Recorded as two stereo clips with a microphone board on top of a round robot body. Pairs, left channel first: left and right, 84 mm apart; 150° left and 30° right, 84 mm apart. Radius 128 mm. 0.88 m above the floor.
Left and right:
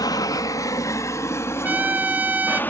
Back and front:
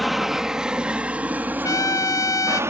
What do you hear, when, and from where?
0.0 s an aircraft: 60° left; by 2.7 s 25° left
1.6 s a trumpet: 160° right